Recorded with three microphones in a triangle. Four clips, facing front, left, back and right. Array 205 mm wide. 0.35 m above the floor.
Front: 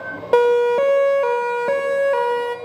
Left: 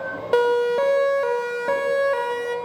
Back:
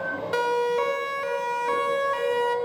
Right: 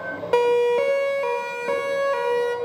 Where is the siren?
Straight ahead, 2.5 m; by 2.5 s 20° left, 3 m.